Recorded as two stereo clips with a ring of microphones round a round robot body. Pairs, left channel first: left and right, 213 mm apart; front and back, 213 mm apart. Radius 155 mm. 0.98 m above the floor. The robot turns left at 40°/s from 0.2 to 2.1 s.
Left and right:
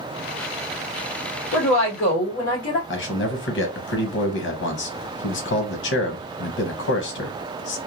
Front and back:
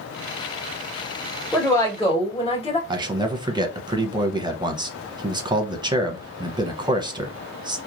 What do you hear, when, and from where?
1.5 s a woman speaking: 85° left, 1.7 m; by 2.8 s 60° left, 1.7 m
2.9 s a man speaking: 110° left, 0.9 m